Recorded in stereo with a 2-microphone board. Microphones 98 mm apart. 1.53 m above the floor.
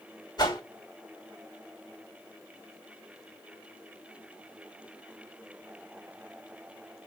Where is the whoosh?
45° left (ahead or behind), 1.9 m.